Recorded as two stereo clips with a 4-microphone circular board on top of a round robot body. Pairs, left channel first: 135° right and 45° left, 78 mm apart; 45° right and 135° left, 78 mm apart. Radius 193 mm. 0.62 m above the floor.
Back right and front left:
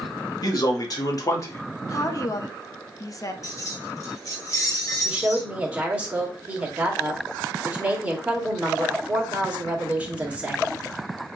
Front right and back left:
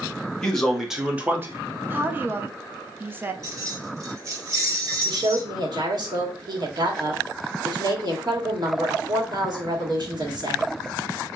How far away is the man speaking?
About 1.7 m.